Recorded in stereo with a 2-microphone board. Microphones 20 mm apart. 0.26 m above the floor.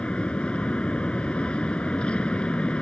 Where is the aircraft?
60° left (ahead or behind).